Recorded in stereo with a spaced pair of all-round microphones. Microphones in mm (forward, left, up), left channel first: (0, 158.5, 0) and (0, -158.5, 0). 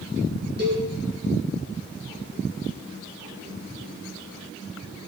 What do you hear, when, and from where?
0.6 s a cowbell: 35° right (ahead or behind), 9 m